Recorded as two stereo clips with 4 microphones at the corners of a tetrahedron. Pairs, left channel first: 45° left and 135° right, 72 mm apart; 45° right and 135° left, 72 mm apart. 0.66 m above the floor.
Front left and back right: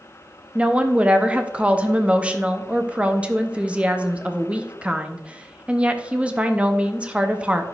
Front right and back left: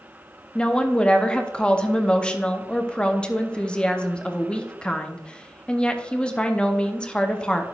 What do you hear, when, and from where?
0.6 s a woman speaking: 95° right, 0.6 m